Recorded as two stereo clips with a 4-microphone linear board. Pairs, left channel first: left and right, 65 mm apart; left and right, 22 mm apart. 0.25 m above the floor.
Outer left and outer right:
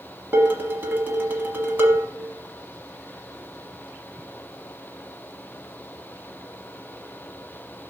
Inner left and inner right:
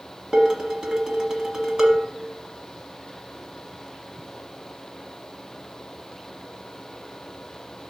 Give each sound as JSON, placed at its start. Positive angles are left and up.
{"t": 0.3, "sound": "dishes clattering", "side_deg": -35, "distance_m": 1.1}